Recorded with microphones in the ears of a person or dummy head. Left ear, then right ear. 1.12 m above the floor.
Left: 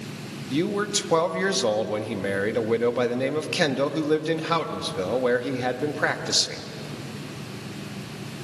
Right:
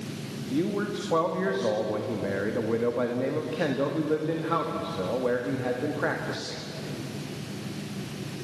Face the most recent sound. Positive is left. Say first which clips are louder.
# left 4 dB
turn(degrees=80)